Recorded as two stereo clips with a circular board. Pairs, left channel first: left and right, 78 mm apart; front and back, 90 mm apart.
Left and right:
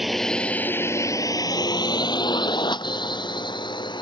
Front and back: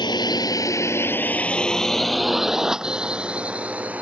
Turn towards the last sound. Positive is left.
turn(degrees=105)